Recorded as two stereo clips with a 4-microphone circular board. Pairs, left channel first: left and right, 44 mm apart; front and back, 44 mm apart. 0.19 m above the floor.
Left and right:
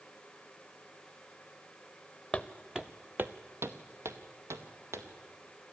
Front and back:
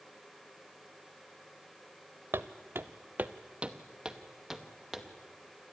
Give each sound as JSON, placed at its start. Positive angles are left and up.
{"t": 2.3, "sound": "footsteps", "azimuth_deg": 170, "distance_m": 0.8}